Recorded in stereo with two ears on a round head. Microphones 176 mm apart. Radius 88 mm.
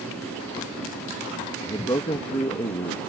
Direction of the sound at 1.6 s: 20° left (ahead or behind).